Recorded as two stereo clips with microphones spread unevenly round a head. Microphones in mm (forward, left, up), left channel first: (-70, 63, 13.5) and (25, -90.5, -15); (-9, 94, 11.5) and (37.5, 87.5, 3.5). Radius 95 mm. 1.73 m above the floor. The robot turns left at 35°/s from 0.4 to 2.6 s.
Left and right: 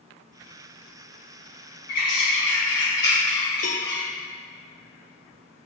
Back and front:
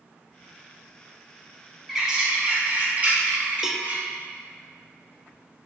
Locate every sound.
1.9 s a bird: 75° left, 3.5 m; by 4.0 s 50° left, 3.5 m
3.6 s a cowbell: 75° left, 1.1 m